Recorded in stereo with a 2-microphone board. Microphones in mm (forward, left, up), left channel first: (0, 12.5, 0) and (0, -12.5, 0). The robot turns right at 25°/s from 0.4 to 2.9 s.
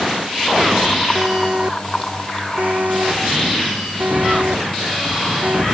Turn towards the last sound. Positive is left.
turn(degrees=-70)  # may be behind; listen again after turning